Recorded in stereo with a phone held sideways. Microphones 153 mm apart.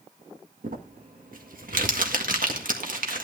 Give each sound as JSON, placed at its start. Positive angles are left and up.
{"t": 0.6, "sound": "crumpling", "side_deg": -65, "distance_m": 1.6}